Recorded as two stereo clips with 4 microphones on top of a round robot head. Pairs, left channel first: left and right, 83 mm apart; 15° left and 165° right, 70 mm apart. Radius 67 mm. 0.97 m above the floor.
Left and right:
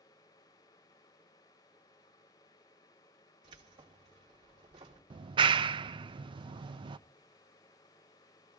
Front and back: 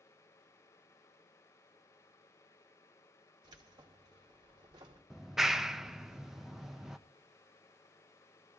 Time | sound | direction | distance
3.4 | keys jangling | 130° right | 2.5 m
5.1 | a clap | 80° right | 0.5 m